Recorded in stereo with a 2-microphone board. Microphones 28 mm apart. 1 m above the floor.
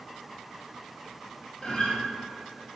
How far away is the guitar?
About 0.6 m.